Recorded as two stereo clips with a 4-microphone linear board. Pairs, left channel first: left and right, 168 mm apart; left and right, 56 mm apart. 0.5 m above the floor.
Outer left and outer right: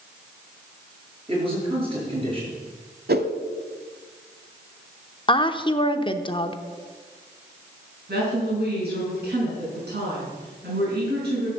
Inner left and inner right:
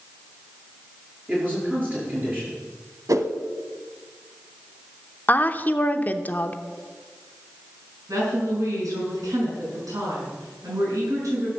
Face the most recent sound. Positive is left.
turn(degrees=-80)